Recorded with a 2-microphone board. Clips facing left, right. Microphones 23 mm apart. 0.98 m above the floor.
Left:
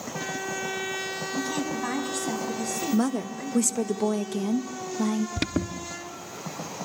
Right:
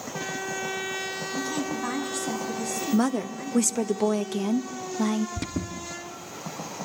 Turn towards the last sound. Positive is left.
turn(degrees=45)  # may be behind; listen again after turning